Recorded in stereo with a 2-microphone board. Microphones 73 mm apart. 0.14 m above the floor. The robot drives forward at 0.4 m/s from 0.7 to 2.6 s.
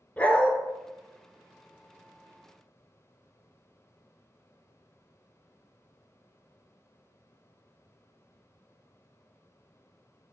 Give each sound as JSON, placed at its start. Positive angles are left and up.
{"t": 0.2, "sound": "a dog barking", "side_deg": 20, "distance_m": 0.7}